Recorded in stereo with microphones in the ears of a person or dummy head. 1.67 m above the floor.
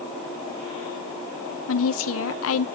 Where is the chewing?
I don't hear chewing.